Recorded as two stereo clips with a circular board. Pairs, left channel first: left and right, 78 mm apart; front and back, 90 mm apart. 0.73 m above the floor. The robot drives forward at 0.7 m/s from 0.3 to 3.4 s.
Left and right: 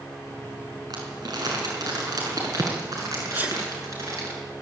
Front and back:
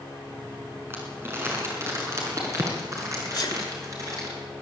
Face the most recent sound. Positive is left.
turn(degrees=-25)